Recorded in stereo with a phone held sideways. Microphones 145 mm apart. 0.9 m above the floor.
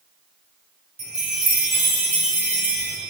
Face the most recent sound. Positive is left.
turn(degrees=-45)  # may be behind; listen again after turning